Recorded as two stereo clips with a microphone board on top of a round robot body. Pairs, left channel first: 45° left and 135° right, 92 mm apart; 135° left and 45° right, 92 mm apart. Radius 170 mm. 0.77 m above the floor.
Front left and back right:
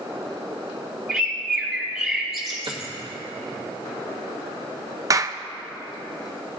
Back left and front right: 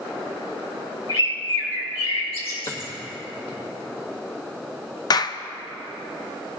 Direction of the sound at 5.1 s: 175° left.